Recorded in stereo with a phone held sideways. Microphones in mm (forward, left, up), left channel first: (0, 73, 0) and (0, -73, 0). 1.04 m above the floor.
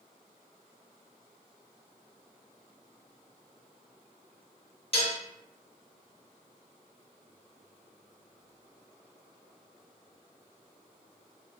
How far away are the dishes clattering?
About 0.8 m.